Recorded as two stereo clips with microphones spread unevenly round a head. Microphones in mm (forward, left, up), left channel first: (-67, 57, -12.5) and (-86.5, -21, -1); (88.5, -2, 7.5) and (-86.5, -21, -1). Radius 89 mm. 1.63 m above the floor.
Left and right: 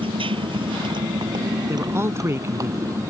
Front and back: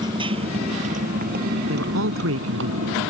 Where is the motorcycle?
105° right; by 3.1 s 160° right.